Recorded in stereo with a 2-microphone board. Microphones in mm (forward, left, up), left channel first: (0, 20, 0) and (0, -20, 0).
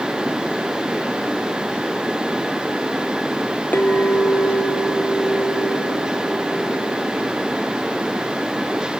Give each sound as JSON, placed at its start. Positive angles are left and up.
{"t": 3.7, "sound": "a clink", "side_deg": 55, "distance_m": 1.5}